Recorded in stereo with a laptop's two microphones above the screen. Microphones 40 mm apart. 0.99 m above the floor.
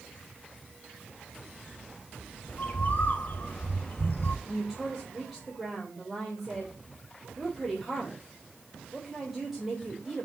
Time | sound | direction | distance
2.5 | a bird | 45° left (ahead or behind) | 1.7 m
4.5 | a woman speaking | 5° right (ahead or behind) | 3.5 m